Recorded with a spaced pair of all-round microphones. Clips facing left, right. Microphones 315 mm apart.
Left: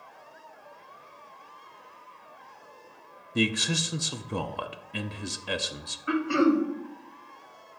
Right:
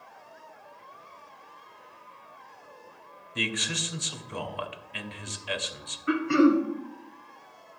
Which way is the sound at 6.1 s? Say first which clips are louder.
Right 2 dB; 25° right (ahead or behind).